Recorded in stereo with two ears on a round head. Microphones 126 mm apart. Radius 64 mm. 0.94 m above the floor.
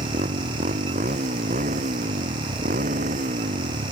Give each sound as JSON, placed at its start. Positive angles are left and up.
{"t": 0.0, "sound": "a motorcycle", "side_deg": -50}